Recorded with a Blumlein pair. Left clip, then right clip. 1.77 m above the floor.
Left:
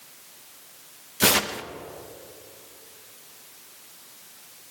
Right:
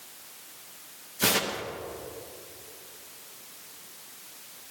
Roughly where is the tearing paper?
Ahead.